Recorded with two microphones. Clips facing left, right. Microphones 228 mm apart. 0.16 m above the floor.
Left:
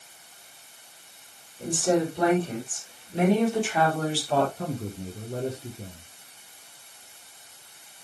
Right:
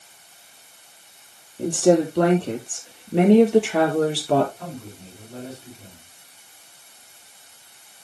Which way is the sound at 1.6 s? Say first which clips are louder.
Right 7 dB; 70° right (ahead or behind).